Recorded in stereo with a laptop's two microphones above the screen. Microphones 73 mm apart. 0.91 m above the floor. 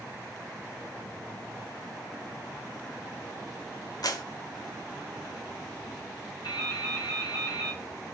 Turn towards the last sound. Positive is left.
turn(degrees=85)